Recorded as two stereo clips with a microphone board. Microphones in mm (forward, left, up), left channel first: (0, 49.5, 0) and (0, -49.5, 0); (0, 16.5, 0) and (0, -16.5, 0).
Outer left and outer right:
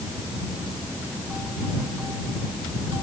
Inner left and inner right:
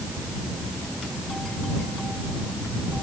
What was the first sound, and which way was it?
Only background noise.